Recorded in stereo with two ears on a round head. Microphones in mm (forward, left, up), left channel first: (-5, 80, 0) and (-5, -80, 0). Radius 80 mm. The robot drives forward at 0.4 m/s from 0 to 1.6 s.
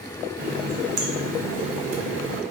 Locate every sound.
0.4 s a running tap: 50° right (ahead or behind), 0.7 m; by 2.4 s 80° right, 0.6 m